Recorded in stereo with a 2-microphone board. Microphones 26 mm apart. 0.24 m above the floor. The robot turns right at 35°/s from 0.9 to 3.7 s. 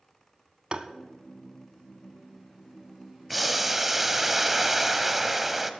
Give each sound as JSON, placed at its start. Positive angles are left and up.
{"t": 0.7, "sound": "tapping", "side_deg": -40, "distance_m": 0.7}
{"t": 3.3, "sound": "boiling", "side_deg": 0, "distance_m": 0.7}